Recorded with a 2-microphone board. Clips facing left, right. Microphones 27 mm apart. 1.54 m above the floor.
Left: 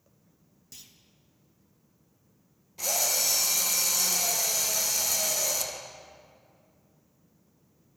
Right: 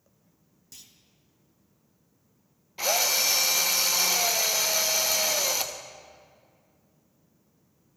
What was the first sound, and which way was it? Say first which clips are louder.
A clunk: even; 5° left (ahead or behind).